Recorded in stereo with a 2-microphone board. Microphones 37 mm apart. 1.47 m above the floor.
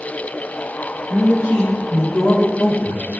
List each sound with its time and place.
1.1 s a man speaking: 70° left (ahead or behind), 2 m; by 3.2 s 75° left (ahead or behind), 1.1 m